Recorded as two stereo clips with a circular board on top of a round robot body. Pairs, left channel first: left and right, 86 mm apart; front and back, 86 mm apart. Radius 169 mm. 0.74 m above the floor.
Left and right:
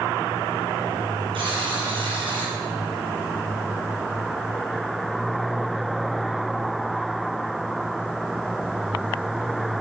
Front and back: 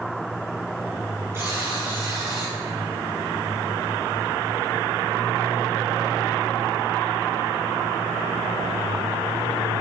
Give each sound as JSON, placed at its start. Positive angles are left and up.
{"t": 1.3, "sound": "a buzzer", "azimuth_deg": -115, "distance_m": 4.0}